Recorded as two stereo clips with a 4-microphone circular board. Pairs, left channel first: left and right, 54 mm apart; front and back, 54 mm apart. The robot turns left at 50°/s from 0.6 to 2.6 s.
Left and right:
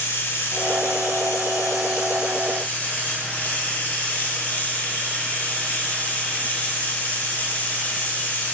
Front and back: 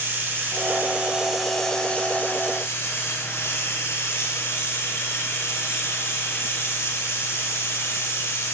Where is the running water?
135° left, 1.4 m; by 8.5 s 35° left, 1.4 m.